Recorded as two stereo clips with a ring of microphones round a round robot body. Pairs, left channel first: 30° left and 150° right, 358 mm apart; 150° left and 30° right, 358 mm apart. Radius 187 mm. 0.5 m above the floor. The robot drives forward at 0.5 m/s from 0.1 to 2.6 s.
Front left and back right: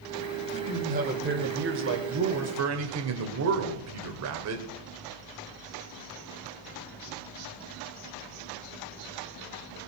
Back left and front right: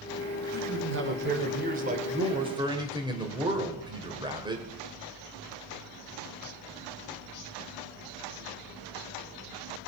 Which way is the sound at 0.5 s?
80° right.